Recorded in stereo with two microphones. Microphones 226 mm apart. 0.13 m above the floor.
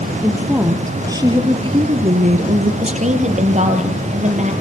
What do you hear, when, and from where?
0.2 s a woman speaking: 10° right (ahead or behind), 4 m; by 2.7 s 40° right (ahead or behind), 2.5 m
2.8 s a woman speaking: 30° right (ahead or behind), 4.5 m